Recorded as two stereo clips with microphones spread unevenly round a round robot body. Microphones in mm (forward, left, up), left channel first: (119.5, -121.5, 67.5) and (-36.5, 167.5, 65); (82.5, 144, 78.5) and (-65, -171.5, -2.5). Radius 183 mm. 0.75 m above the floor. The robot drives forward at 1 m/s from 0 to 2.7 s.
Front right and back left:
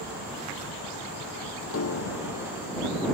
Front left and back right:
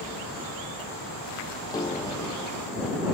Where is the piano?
15° right.